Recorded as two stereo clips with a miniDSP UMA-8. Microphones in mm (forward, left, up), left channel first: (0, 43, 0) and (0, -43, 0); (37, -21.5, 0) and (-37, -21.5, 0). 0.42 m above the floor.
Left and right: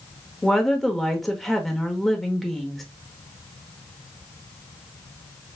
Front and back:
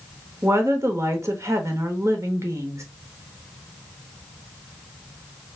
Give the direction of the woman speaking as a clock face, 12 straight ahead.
6 o'clock.